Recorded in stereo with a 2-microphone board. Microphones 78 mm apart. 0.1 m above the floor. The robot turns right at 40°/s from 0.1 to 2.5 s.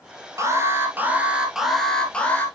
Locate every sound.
0.4 s an alarm: 55° right, 1.6 m; by 2.5 s 30° left, 1.6 m